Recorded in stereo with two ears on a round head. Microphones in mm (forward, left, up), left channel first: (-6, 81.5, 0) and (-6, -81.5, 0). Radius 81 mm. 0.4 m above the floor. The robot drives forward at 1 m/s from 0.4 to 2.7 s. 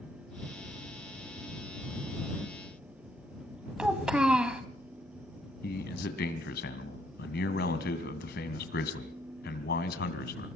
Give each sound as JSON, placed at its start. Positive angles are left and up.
{"t": 3.8, "sound": "a child speaking", "side_deg": -5, "distance_m": 1.7}
{"t": 5.6, "sound": "a man speaking", "side_deg": 60, "distance_m": 2.5}